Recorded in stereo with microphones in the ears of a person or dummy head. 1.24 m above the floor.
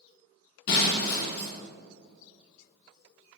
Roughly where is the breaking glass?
Left.